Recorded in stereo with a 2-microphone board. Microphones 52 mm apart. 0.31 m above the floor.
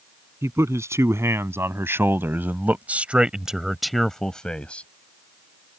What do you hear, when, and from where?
0.4 s a man speaking: 70° right (ahead or behind); by 4.9 s 25° left (ahead or behind)